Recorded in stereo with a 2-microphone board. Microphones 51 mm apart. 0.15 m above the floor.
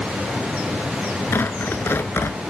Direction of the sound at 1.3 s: 55° left (ahead or behind).